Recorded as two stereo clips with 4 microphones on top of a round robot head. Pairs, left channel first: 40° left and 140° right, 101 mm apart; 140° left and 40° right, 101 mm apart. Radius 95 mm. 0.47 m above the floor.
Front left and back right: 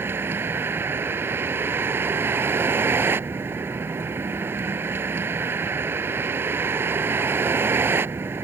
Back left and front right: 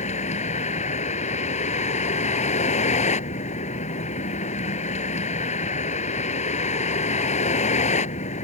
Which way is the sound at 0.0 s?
150° left.